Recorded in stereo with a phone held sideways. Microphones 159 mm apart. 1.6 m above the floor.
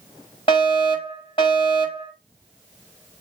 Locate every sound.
0.5 s a fire alarm: 35° left (ahead or behind), 6 m